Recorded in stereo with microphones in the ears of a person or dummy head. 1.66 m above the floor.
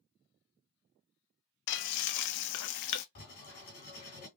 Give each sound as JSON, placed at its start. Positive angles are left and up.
{"t": 1.7, "sound": "frying", "side_deg": 60, "distance_m": 0.5}
{"t": 3.1, "sound": "writing", "side_deg": 45, "distance_m": 2.5}